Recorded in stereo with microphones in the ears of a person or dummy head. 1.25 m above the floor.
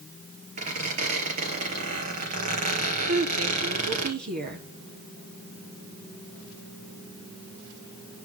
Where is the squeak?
40° right (ahead or behind), 3.5 m.